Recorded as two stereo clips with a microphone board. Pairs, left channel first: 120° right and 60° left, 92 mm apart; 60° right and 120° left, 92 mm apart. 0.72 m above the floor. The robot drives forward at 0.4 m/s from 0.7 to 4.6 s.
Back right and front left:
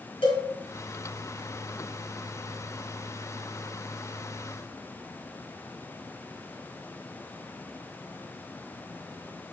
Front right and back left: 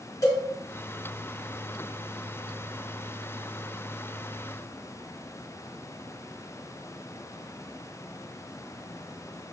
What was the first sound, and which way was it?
A cowbell, 110° right.